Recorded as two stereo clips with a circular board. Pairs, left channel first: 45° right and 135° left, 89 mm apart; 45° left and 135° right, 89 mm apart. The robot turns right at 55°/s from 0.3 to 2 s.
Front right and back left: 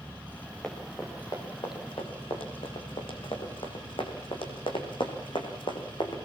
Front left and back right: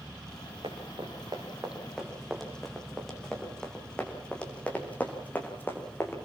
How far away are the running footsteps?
About 6.5 m.